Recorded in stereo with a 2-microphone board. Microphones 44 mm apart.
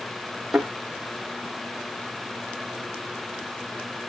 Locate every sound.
0.5 s a thud: 5° right (ahead or behind), 5 m